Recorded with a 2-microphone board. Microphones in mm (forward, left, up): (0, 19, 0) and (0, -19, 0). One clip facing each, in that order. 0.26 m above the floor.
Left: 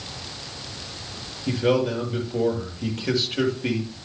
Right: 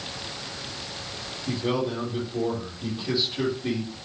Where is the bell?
I don't hear a bell.